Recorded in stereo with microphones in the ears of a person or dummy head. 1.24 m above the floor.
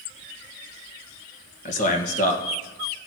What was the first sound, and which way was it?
A man speaking, 35° left (ahead or behind).